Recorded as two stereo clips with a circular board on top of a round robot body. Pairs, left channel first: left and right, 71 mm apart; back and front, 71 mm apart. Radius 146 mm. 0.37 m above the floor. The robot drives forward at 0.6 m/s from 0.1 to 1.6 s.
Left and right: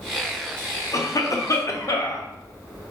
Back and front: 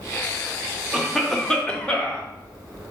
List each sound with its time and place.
0.9 s a cough: 80° left, 1.2 m; by 2.3 s 105° left, 1.2 m